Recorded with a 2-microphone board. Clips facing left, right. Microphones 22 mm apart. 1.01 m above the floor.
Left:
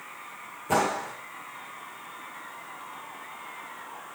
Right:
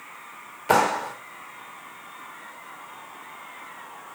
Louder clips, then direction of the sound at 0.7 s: Right 5 dB; 75° right (ahead or behind).